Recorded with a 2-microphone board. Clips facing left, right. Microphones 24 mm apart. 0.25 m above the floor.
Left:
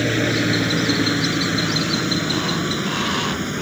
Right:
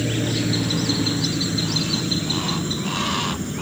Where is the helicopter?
40° left (ahead or behind); by 3.6 s 45° left (ahead or behind).